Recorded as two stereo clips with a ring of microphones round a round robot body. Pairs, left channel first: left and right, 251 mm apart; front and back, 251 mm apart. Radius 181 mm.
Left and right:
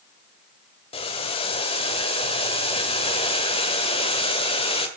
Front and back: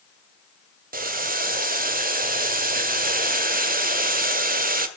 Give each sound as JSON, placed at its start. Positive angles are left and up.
{"t": 0.9, "sound": "boiling", "azimuth_deg": 150, "distance_m": 1.6}